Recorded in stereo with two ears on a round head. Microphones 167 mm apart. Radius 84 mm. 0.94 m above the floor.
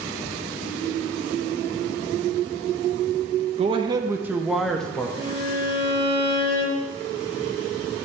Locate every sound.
3.6 s a man speaking: 35° right (ahead or behind), 0.8 m; by 5.1 s 10° left (ahead or behind), 1.3 m
5.2 s a violin: 35° right (ahead or behind), 3 m